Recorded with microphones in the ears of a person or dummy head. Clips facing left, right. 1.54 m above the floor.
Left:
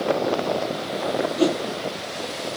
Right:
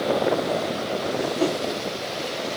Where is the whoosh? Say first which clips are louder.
Left 4 dB; 20° left (ahead or behind), 0.9 m.